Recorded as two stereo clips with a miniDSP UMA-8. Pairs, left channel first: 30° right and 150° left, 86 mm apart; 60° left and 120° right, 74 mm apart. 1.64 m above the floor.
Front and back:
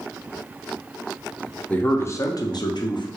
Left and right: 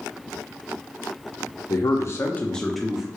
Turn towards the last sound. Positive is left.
turn(degrees=-40)